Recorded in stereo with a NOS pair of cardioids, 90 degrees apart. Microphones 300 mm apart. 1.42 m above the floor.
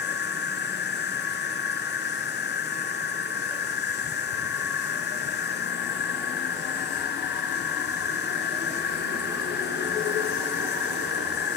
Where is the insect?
35° left, 0.8 m.